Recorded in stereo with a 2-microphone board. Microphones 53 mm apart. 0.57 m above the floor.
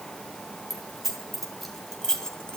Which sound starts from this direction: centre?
Keys jangling, at 0.7 s.